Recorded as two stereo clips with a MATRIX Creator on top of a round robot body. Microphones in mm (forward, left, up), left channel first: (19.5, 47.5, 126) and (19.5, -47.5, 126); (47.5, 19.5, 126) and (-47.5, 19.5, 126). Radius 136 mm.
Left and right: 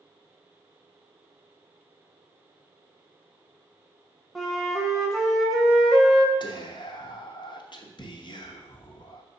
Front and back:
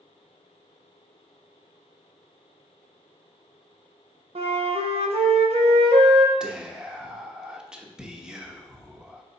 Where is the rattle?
No rattle in this recording.